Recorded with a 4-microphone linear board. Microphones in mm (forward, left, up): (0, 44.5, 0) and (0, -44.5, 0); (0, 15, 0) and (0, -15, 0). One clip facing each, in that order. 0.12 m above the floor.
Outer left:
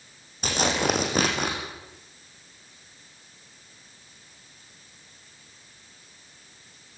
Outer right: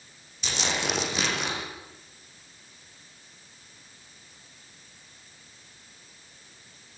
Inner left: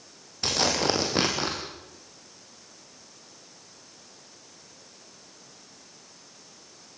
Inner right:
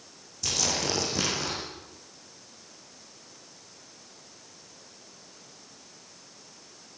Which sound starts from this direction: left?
Tearing paper, at 0.4 s.